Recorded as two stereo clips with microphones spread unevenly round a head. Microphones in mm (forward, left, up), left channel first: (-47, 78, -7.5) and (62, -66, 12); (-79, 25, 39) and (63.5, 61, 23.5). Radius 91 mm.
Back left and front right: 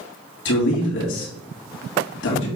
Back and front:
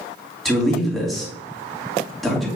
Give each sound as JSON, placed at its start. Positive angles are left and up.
{"t": 0.5, "sound": "a man speaking", "azimuth_deg": 105, "distance_m": 3.0}